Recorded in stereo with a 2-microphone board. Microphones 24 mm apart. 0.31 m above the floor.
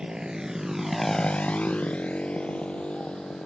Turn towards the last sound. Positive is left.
turn(degrees=45)  # may be behind; listen again after turning